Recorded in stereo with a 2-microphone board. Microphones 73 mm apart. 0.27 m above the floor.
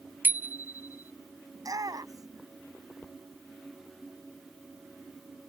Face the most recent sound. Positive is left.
turn(degrees=-55)  # may be behind; listen again after turning